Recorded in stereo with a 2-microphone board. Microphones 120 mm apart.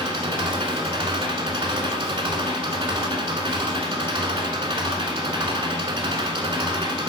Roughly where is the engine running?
Right.